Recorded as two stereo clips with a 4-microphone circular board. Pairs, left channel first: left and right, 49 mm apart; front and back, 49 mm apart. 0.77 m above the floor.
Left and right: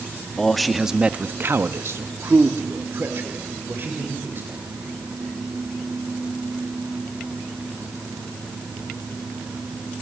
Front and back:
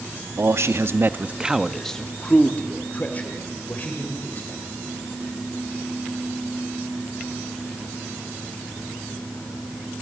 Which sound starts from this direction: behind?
A man speaking, at 0.4 s.